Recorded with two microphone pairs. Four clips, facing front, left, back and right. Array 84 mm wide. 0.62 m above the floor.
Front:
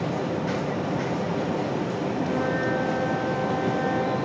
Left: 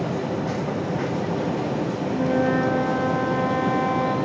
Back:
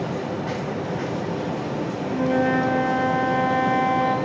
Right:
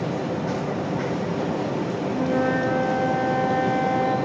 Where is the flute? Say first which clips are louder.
Left 1 dB, back 7 dB; 175° right, 4.5 m.